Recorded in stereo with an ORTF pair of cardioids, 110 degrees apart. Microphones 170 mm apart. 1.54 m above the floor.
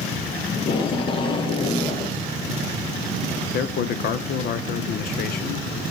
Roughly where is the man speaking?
Ahead left.